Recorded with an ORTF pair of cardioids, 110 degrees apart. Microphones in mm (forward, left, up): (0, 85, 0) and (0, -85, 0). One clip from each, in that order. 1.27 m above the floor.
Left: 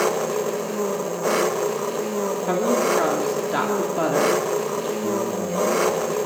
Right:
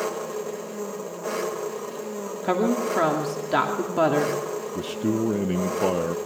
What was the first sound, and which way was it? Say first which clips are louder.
An engine running: left 7 dB; 45° left.